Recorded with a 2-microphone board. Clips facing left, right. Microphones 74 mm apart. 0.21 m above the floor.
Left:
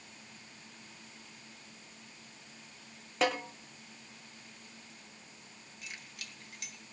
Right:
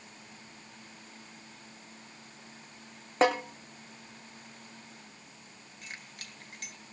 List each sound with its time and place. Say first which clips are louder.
3.2 s a snare drum: right 6 dB; 35° right (ahead or behind), 3.5 m
5.8 s keys jangling: right 2 dB; 40° right (ahead or behind), 2.5 m